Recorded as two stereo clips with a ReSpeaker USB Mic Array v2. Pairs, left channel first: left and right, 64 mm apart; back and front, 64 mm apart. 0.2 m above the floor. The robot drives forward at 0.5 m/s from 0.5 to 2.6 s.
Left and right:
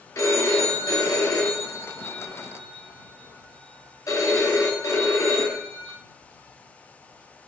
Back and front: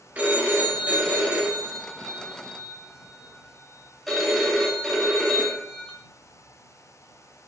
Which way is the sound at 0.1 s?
60° left.